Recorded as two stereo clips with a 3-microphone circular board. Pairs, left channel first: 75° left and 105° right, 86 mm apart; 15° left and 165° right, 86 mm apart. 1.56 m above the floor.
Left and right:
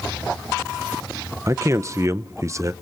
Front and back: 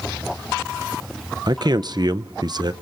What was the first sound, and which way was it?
A man speaking, 150° right.